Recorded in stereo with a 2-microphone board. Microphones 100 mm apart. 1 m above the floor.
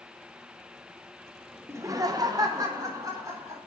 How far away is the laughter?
About 0.7 m.